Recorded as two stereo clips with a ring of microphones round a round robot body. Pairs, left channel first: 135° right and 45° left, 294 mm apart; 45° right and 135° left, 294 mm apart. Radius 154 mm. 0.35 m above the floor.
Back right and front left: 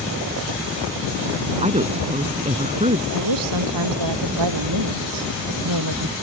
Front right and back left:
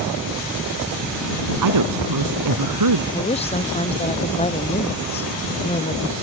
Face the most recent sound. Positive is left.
turn(degrees=25)